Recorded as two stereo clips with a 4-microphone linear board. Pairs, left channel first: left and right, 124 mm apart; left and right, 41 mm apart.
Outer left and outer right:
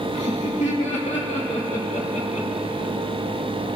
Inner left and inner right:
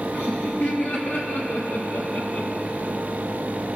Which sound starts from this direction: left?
Laughter, at 0.1 s.